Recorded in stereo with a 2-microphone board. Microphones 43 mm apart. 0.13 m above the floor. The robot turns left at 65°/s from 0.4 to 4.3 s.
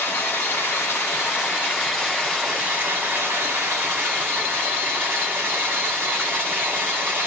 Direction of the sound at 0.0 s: 125° left.